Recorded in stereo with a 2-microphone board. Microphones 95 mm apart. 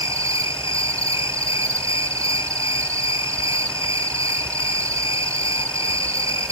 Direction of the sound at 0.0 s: 35° right (ahead or behind).